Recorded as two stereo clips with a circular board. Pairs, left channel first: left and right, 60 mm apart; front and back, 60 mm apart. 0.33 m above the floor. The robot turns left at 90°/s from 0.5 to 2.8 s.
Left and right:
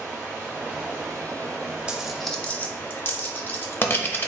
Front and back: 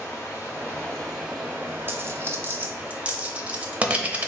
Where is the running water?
30° right, 1.5 m; by 4.3 s 120° left, 1.5 m.